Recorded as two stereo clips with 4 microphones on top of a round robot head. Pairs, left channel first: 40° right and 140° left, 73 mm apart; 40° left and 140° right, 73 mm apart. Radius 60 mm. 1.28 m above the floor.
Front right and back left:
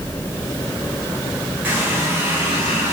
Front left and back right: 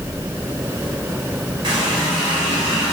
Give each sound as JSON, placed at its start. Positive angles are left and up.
{"t": 1.6, "sound": "a running tap", "azimuth_deg": -155, "distance_m": 4.0}